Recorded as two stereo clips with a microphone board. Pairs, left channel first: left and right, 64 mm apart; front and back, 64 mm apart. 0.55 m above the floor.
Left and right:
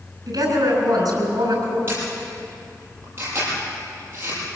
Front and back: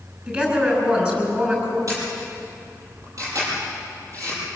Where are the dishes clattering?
No dishes clattering in this recording.